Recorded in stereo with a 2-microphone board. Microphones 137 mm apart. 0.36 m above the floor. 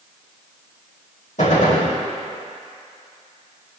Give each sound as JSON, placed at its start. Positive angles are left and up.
{"t": 1.4, "sound": "a gunshot", "side_deg": 75, "distance_m": 4.5}